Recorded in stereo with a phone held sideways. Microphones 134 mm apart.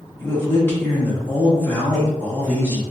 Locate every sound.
0.2 s a man speaking: 15° left (ahead or behind), 0.8 m